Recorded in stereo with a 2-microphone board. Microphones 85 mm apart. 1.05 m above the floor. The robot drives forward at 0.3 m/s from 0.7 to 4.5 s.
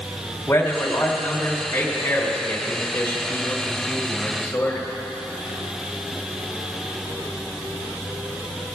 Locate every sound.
0.5 s a man speaking: 20° left (ahead or behind), 4 m; by 4.9 s 15° left (ahead or behind), 5 m